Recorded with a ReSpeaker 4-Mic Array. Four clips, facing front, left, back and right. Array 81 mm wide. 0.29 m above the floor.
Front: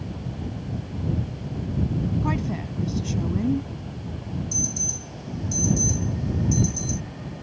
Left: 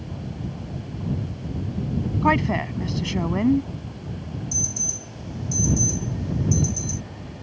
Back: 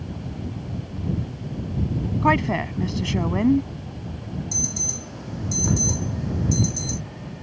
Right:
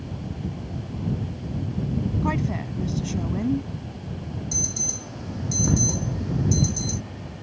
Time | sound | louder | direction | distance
2.2 | a woman speaking | left 6 dB, back 7 dB | 140° left | ?
4.5 | an alarm | right 1 dB, even | 140° right | ?